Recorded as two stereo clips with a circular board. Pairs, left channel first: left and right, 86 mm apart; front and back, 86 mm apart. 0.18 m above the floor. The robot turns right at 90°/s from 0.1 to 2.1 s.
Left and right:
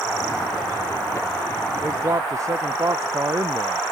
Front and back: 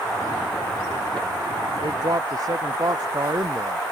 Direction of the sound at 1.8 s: 165° right.